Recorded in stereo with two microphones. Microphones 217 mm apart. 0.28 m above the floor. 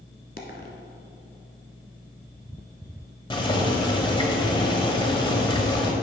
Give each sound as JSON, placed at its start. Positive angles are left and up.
{"t": 0.4, "sound": "a dropped coin", "side_deg": 45, "distance_m": 1.2}
{"t": 3.3, "sound": "boiling", "side_deg": 20, "distance_m": 1.1}